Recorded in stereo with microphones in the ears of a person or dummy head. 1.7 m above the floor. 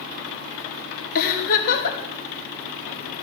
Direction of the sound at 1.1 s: 50° left (ahead or behind).